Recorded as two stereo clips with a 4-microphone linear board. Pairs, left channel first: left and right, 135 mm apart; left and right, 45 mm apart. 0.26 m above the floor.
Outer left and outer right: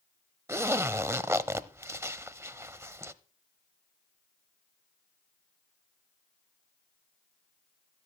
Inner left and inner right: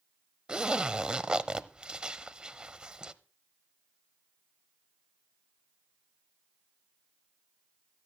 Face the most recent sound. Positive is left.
turn(degrees=-20)  # may be behind; listen again after turning